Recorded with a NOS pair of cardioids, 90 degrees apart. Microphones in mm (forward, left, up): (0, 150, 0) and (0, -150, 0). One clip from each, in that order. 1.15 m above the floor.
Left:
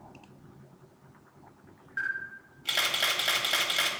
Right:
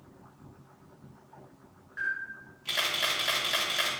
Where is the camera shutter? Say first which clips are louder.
Even; 25° left, 1.9 m.